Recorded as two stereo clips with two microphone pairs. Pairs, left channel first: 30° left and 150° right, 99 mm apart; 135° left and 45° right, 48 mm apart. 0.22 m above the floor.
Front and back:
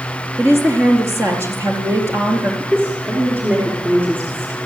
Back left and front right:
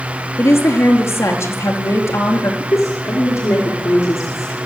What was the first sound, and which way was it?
A woman speaking, 150° left.